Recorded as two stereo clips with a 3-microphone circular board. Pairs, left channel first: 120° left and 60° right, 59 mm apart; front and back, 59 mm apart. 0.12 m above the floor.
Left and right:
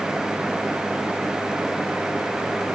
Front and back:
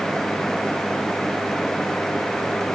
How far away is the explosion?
No explosion in this recording.